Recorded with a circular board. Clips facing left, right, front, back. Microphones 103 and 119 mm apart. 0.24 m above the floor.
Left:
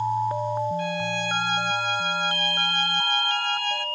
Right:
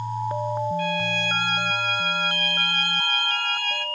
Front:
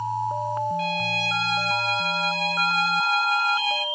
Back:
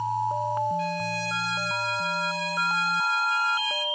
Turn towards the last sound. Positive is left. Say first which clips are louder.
# right 1 dB, front 2 dB
turn(degrees=25)